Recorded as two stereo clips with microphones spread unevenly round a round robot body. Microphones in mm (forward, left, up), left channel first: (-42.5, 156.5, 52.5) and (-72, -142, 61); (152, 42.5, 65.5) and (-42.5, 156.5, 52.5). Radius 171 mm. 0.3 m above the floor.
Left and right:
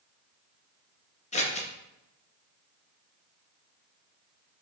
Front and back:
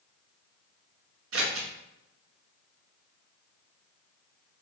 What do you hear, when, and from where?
1.3 s scissors: 150° left, 0.7 m